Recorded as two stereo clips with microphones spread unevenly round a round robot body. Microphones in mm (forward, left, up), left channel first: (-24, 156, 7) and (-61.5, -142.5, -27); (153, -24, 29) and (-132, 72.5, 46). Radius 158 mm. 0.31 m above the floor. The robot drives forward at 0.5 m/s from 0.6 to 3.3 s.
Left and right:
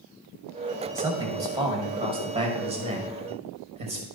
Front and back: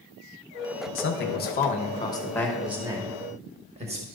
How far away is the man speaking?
About 1.2 m.